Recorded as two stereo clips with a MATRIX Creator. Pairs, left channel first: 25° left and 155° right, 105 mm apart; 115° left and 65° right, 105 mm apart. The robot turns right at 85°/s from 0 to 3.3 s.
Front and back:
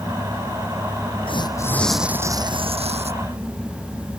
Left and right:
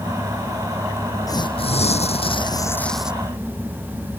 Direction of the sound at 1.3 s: 55° left.